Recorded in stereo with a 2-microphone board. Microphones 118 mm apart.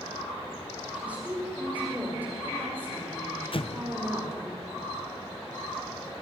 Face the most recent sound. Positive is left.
turn(degrees=55)  # may be behind; listen again after turning